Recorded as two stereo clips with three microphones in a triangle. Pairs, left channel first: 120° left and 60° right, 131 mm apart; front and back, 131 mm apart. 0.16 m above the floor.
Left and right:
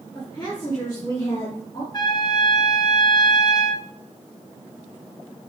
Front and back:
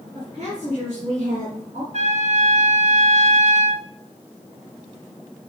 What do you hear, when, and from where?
0.1 s a woman speaking: 170° left, 3 m
1.9 s a trumpet: 170° left, 0.9 m